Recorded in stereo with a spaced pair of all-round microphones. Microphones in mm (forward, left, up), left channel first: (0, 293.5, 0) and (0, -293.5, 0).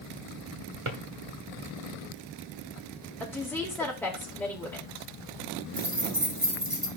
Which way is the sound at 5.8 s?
55° right (ahead or behind).